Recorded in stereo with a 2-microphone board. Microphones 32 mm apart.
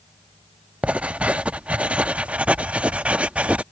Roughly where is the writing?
Right.